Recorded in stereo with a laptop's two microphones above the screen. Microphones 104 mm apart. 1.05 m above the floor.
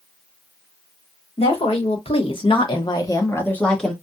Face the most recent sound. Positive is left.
turn(degrees=0)  # may be behind; listen again after turning